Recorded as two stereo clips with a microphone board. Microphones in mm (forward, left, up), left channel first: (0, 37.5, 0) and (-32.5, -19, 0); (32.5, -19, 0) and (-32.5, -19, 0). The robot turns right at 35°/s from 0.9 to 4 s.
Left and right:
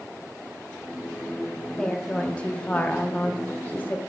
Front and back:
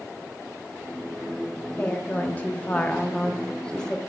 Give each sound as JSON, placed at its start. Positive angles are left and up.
{"t": 1.8, "sound": "a woman speaking", "azimuth_deg": -5, "distance_m": 0.7}